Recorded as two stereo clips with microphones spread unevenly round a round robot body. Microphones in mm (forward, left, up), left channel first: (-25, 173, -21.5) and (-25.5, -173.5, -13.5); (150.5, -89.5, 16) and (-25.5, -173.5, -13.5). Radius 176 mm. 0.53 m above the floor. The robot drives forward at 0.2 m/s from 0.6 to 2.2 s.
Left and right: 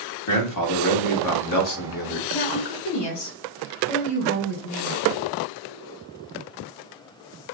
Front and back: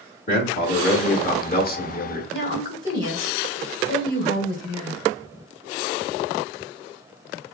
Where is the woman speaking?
105° left, 1.7 m.